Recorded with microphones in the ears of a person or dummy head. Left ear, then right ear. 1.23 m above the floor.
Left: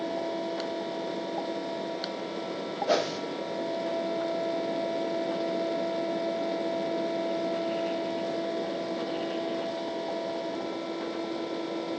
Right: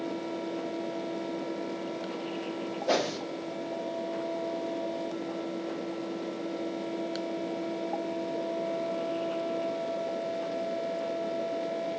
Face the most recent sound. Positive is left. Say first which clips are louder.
# left 1 dB
turn(degrees=-5)  # may be behind; listen again after turning